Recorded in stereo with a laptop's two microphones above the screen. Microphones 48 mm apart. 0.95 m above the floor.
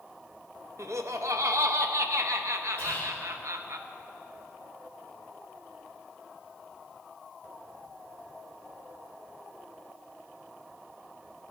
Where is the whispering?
30° left (ahead or behind), 2.5 m.